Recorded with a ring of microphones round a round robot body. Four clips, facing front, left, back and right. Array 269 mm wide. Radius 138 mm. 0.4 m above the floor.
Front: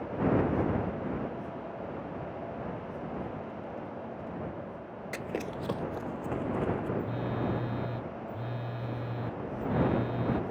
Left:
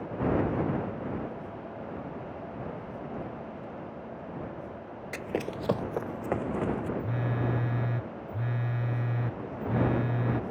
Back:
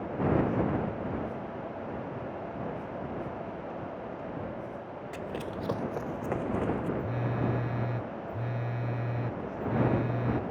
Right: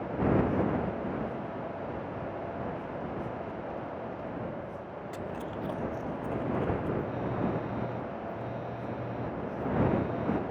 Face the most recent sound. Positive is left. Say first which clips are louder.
# right 1 dB, back 1 dB
turn(degrees=105)